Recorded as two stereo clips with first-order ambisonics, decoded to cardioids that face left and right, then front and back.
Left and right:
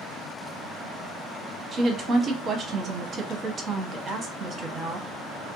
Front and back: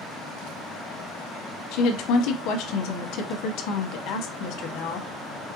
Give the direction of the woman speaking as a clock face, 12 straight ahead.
1 o'clock.